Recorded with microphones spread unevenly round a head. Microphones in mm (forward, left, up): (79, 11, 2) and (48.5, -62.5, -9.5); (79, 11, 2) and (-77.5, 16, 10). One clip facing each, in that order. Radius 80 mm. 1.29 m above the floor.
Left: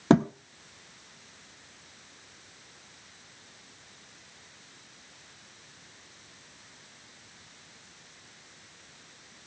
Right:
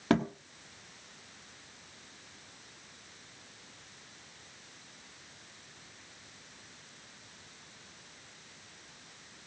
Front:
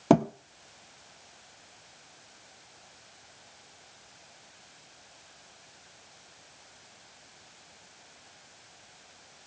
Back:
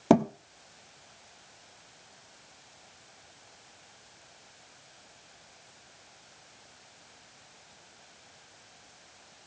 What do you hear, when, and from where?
0.1 s a thud: 100° left, 0.8 m